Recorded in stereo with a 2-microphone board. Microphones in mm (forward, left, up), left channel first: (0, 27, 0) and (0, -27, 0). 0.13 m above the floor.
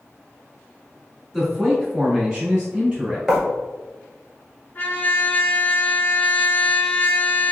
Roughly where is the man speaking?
Centre.